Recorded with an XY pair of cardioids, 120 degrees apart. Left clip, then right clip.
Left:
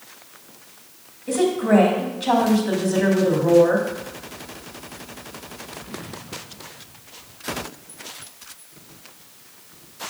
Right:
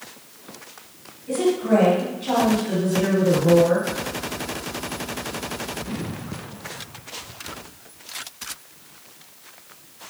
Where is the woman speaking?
60° left, 2.5 m.